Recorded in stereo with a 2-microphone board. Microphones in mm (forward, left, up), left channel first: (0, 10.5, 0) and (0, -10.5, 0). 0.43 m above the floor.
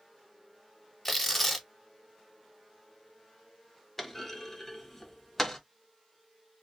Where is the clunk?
20° left (ahead or behind), 0.6 m.